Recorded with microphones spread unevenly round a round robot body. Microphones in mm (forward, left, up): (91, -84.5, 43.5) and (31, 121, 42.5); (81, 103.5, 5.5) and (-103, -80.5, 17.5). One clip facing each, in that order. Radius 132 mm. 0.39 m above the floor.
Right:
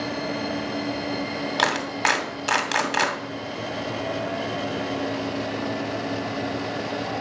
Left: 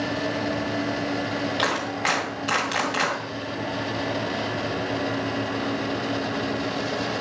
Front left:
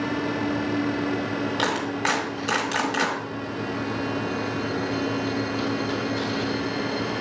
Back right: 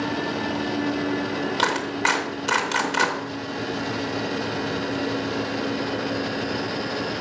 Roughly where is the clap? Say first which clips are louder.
Even, even; ahead right.